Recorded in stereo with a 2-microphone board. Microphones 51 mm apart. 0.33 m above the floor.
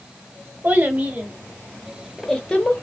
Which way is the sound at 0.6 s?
35° right (ahead or behind).